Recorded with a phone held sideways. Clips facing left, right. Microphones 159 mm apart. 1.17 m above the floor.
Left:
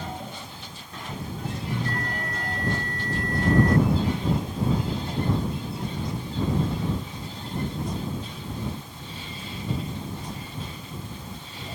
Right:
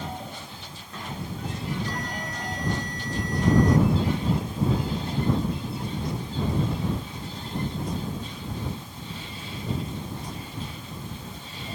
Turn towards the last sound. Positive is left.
turn(degrees=55)  # may be behind; listen again after turning